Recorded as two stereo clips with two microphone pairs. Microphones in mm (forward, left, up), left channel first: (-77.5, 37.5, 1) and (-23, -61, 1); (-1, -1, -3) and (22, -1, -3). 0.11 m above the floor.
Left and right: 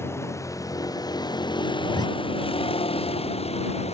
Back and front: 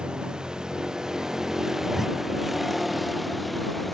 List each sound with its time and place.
0.0 s a vehicle: 50° left; by 3.9 s 95° left
1.8 s a zipper: 75° left